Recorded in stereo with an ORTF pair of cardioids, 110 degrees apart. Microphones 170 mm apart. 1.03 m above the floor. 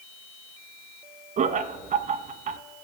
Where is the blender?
I don't hear a blender.